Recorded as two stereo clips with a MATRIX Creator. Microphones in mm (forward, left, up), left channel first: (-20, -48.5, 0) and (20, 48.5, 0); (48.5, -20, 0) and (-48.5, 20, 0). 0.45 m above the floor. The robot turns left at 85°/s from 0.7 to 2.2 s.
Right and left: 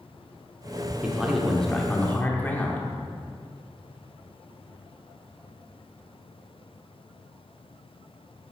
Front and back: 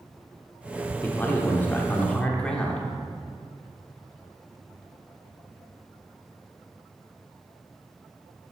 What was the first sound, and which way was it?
A man speaking, 15° left.